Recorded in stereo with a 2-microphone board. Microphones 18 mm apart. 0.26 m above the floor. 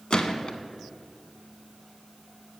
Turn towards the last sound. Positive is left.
turn(degrees=60)  # may be behind; listen again after turning